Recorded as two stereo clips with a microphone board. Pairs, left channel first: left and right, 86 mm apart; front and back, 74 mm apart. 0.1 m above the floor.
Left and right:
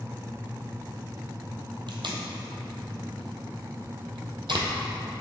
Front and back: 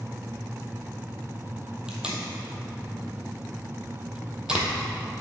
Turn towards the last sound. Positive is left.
turn(degrees=-100)